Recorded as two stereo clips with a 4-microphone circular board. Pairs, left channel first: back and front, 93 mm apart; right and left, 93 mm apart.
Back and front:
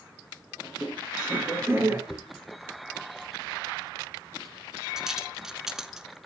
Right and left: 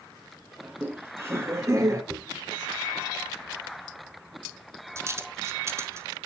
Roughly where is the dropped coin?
Left.